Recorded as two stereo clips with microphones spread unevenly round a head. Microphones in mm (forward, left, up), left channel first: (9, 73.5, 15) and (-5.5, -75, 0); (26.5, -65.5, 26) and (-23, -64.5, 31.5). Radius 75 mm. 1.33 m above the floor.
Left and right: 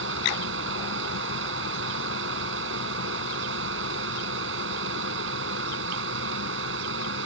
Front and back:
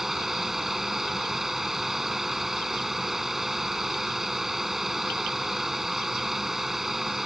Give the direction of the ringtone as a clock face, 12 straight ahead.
I don't hear a ringtone.